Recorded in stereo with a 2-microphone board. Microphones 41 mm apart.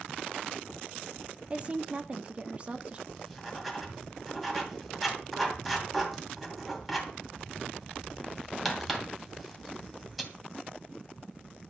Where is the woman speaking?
30° right (ahead or behind), 1.4 m.